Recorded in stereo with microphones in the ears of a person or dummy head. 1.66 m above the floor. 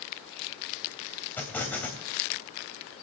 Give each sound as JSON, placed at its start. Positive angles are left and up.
{"t": 1.4, "sound": "an explosion", "side_deg": 10, "distance_m": 3.0}